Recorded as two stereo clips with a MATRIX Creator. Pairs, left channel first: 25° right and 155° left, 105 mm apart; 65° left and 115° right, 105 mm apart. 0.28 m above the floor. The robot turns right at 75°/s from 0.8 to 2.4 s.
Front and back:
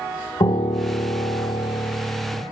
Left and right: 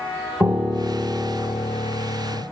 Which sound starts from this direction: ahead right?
A piano, at 0.4 s.